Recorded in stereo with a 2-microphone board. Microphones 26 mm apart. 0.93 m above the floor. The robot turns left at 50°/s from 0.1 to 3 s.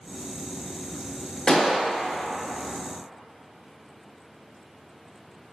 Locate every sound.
1.5 s a gunshot: 40° left (ahead or behind), 0.7 m; by 1.8 s 50° left (ahead or behind), 0.7 m